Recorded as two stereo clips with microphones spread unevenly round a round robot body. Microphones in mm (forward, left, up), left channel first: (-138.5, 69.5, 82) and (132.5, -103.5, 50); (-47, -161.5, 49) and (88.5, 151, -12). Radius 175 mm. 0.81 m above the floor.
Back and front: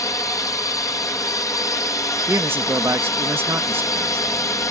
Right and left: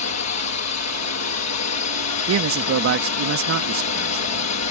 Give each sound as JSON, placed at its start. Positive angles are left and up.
{"t": 0.0, "sound": "a drone", "azimuth_deg": -130}
{"t": 2.3, "sound": "a man speaking", "azimuth_deg": 45}